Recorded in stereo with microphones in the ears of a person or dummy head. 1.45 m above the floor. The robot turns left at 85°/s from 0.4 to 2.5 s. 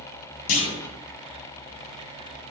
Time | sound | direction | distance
0.5 | a clunk | 45° left (ahead or behind) | 1.6 m